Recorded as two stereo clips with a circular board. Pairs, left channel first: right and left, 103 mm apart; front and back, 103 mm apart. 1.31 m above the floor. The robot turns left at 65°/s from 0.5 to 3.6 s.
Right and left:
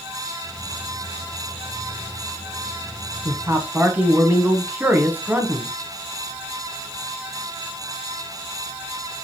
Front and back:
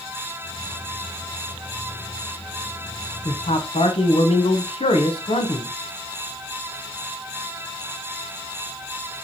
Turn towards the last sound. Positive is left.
turn(degrees=15)